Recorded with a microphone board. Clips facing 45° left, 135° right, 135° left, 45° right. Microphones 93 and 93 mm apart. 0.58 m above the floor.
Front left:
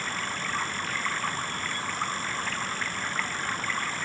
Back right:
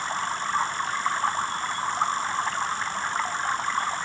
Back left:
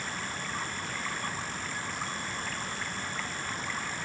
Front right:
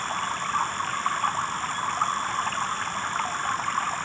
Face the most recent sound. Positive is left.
turn(degrees=-75)